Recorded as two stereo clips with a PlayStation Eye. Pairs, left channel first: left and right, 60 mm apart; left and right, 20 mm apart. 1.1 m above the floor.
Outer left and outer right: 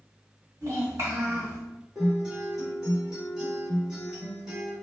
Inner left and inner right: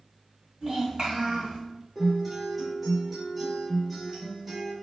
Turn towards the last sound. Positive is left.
turn(degrees=-10)  # may be behind; listen again after turning